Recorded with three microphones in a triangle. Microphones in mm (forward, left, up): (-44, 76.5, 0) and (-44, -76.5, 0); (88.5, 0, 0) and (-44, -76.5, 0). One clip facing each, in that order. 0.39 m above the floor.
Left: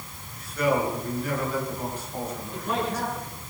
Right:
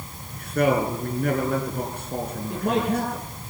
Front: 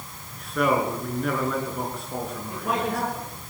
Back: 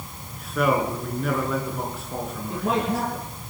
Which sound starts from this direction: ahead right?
A man speaking, at 0.3 s.